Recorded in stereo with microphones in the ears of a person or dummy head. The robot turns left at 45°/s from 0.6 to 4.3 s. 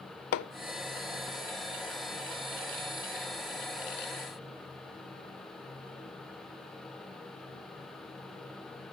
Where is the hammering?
55° left (ahead or behind), 0.5 m.